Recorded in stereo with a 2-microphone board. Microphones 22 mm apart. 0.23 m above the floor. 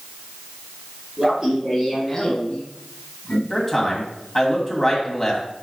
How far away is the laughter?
About 2 m.